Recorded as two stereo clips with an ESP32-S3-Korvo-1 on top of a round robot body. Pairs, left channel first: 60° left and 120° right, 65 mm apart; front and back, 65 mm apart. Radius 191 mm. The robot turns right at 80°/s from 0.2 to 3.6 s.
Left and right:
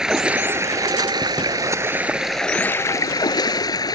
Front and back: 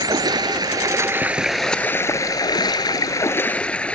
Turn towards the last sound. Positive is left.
turn(degrees=70)